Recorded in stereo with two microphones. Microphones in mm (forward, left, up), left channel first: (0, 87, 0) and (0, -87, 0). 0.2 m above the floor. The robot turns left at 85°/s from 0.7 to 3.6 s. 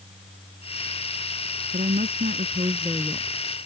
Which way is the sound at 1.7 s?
60° right.